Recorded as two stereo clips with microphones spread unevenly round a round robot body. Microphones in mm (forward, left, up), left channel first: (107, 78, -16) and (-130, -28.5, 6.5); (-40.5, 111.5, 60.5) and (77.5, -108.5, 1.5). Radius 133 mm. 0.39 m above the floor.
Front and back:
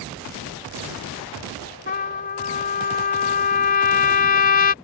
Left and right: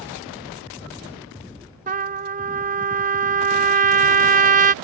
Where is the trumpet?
25° right.